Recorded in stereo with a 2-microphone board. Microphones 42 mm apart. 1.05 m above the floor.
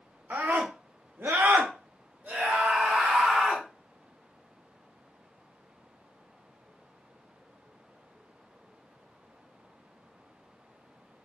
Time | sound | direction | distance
0.3 | a scream | 55° right (ahead or behind) | 1.0 m